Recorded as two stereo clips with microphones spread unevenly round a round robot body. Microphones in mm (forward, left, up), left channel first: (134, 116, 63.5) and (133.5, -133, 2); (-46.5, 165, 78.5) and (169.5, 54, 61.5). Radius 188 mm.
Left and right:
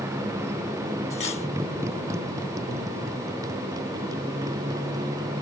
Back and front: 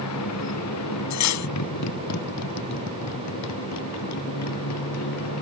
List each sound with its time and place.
0.0 s a motorcycle: 175° right; by 5.4 s 170° right
1.1 s cutlery clinking: 165° left